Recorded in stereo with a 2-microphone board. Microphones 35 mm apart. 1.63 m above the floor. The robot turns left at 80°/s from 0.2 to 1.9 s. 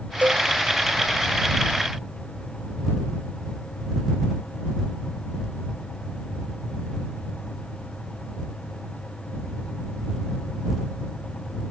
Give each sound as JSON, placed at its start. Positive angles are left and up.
{"t": 0.2, "sound": "a cowbell", "side_deg": -50}